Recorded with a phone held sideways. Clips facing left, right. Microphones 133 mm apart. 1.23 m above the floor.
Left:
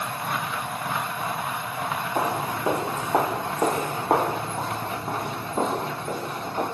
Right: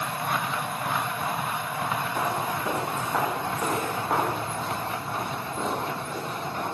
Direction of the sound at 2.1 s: 30° left (ahead or behind).